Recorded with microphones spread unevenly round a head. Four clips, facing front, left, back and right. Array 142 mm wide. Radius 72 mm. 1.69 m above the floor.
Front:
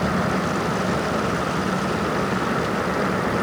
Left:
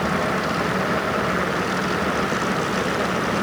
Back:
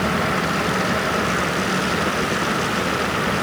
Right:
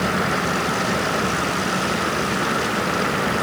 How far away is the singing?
No singing in this recording.